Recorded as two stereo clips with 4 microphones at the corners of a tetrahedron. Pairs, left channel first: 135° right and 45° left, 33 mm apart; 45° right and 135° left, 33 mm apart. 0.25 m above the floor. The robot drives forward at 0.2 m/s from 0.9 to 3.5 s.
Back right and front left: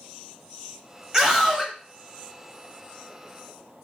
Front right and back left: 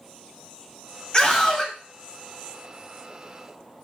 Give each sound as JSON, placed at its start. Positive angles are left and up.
{"t": 1.1, "sound": "a scream", "azimuth_deg": -10, "distance_m": 1.0}